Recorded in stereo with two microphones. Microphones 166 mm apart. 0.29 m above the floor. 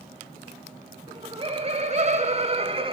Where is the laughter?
30° right (ahead or behind), 1.5 m.